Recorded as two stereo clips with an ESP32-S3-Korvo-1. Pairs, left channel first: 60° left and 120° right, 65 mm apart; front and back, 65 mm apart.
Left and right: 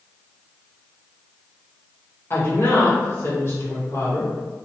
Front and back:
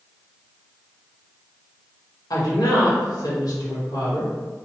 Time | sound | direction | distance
2.3 | a woman speaking | 10° left | 1.2 m